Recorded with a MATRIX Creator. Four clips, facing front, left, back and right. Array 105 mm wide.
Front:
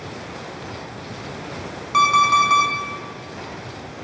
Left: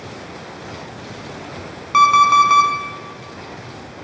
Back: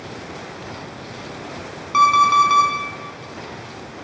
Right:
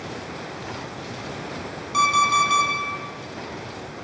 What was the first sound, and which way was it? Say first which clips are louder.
An alarm clock: left 8 dB, back 2 dB; 100° left.